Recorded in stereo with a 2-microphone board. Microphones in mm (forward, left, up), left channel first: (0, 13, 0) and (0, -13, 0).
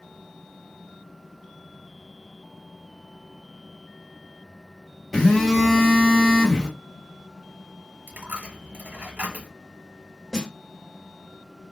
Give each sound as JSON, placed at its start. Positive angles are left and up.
{"t": 5.1, "sound": "a phone buzzing", "side_deg": 10, "distance_m": 1.8}
{"t": 8.1, "sound": "a dropped coin", "side_deg": -65, "distance_m": 0.8}
{"t": 10.3, "sound": "a snare drum", "side_deg": 25, "distance_m": 1.6}